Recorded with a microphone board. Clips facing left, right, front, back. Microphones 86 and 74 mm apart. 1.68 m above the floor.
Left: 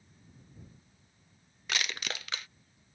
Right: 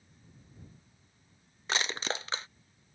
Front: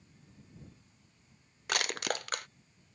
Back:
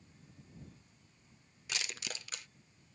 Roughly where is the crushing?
Ahead right.